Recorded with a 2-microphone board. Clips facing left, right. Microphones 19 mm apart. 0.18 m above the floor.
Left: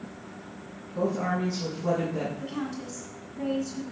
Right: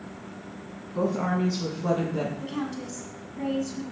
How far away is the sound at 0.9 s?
About 1.3 m.